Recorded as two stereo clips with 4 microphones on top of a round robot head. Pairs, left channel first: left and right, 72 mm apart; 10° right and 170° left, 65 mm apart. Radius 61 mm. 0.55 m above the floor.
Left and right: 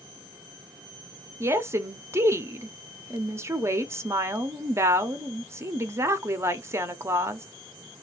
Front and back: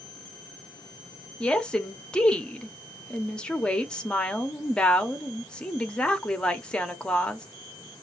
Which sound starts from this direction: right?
A woman speaking, at 1.4 s.